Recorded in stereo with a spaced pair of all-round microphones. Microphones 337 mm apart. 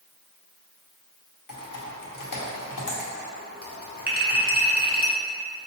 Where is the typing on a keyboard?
80° left, 0.8 m.